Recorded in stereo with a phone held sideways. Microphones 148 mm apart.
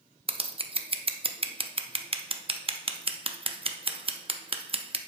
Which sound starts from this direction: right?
Scissors, at 0.3 s.